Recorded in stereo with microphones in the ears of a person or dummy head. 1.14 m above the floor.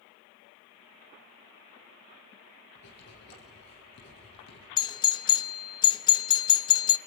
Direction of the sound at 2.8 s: 65° left (ahead or behind).